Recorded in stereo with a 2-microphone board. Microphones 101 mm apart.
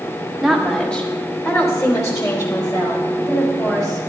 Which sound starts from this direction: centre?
A woman speaking, at 0.4 s.